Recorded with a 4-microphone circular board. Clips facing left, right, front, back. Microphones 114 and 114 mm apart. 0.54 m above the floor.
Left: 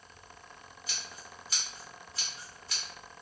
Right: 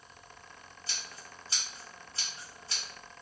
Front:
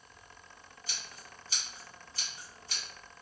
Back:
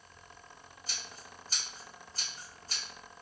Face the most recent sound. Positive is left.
turn(degrees=-145)